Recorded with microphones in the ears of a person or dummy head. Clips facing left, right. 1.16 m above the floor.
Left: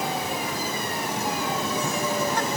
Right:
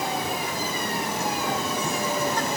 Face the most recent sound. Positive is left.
No sound to turn to.